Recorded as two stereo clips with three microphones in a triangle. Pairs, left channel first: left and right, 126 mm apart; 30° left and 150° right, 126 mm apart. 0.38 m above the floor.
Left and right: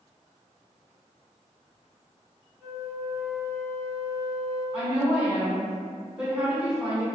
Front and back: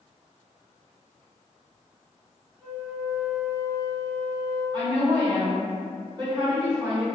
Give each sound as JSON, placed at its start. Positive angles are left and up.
{"t": 2.6, "sound": "a flute", "azimuth_deg": 50, "distance_m": 1.2}
{"t": 4.7, "sound": "a woman speaking", "azimuth_deg": -165, "distance_m": 1.6}